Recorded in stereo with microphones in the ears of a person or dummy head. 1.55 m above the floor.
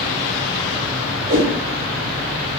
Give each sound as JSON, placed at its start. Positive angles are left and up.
{"t": 1.3, "sound": "a whoosh", "side_deg": -30, "distance_m": 0.7}